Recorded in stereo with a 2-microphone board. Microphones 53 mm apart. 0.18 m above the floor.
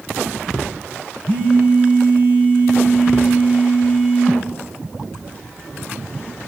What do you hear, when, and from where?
1.3 s a phone buzzing: 25° right (ahead or behind), 4 m